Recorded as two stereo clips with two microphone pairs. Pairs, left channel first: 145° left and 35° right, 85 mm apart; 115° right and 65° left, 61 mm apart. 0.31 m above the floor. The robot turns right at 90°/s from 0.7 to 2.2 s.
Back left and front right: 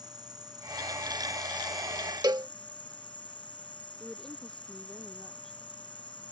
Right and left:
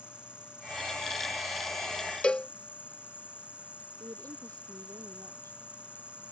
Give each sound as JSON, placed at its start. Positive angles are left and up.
{"t": 0.0, "sound": "an insect", "azimuth_deg": -5}
{"t": 2.2, "sound": "a cowbell", "azimuth_deg": -40}
{"t": 4.0, "sound": "a woman speaking", "azimuth_deg": 60}